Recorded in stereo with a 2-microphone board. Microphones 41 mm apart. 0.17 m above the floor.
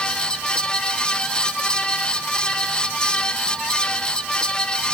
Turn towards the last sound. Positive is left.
No sound to turn to.